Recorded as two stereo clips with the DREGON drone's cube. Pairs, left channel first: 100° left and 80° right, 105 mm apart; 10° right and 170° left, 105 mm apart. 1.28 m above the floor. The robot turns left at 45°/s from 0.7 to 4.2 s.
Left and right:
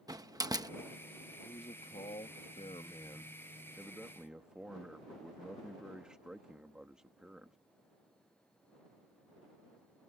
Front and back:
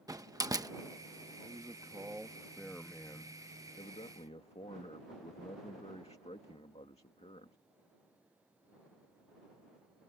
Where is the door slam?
135° right.